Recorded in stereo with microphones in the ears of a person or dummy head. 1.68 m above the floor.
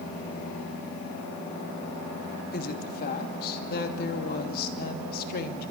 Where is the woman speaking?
60° left (ahead or behind), 2.5 m.